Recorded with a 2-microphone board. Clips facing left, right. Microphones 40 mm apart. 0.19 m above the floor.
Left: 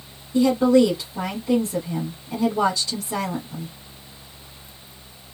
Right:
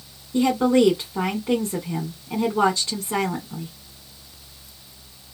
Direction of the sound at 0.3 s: 40° right (ahead or behind).